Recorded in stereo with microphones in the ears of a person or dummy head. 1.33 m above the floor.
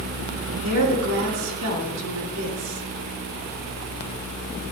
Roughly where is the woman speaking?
Right.